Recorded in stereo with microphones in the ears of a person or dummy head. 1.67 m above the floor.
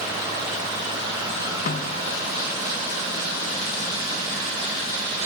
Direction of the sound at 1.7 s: 45° left (ahead or behind).